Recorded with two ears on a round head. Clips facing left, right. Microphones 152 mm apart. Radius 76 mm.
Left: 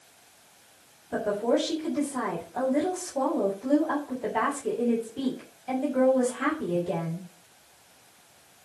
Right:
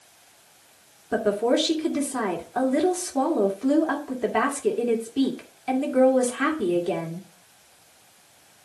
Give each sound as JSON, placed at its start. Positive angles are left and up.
{"t": 1.1, "sound": "a woman speaking", "side_deg": -80, "distance_m": 2.5}